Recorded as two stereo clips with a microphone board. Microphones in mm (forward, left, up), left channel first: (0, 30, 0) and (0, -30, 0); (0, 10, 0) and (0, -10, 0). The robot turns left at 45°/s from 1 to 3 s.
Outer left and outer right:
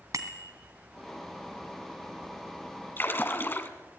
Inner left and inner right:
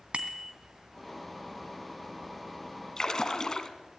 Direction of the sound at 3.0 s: 35° left (ahead or behind).